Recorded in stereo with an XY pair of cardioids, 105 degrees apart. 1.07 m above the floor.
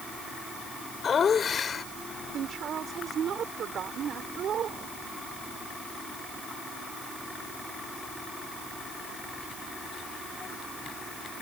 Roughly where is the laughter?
Ahead left.